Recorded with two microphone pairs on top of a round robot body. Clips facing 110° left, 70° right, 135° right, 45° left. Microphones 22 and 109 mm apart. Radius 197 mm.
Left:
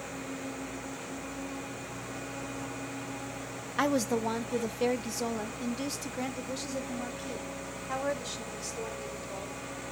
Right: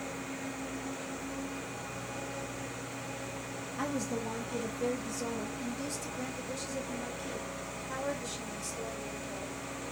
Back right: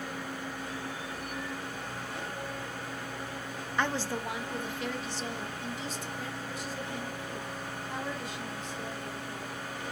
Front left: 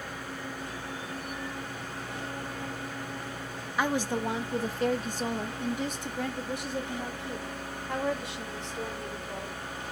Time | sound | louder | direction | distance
3.8 | a woman speaking | left 7 dB, front left 3 dB | 125° left | 0.9 m